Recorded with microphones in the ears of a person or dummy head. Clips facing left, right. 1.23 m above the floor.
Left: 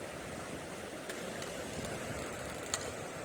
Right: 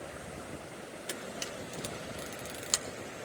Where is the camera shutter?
55° right (ahead or behind), 1.2 m.